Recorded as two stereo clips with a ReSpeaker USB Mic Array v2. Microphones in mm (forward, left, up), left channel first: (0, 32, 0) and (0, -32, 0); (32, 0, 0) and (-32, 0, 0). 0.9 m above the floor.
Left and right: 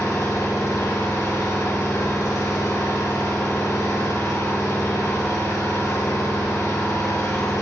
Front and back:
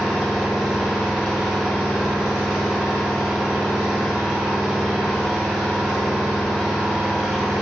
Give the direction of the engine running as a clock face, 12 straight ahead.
9 o'clock.